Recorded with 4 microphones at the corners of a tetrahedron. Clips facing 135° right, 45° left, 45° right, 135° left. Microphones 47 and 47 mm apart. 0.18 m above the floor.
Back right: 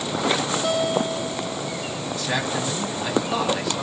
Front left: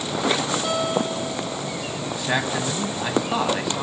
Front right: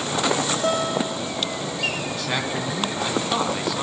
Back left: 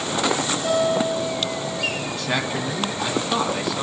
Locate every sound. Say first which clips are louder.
0.6 s a guitar: back right 3 dB, back left 6 dB; 40° right, 8.5 m
2.1 s a man speaking: front left 2 dB, back left 1 dB; 35° left, 1.2 m